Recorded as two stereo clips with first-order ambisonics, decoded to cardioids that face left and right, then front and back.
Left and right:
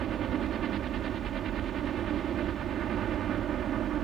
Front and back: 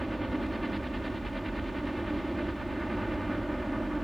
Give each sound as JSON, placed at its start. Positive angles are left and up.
{"t": 0.0, "sound": "a helicopter", "azimuth_deg": -95}